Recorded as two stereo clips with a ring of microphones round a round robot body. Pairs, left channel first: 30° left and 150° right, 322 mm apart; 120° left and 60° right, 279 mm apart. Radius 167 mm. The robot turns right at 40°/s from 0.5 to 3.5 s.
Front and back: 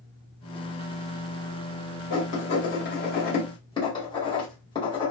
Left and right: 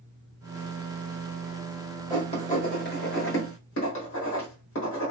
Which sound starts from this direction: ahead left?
Writing, at 2.1 s.